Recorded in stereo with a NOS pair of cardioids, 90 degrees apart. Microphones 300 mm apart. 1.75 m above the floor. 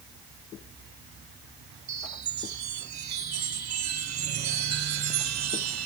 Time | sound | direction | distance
1.9 | a chime | 65° right | ?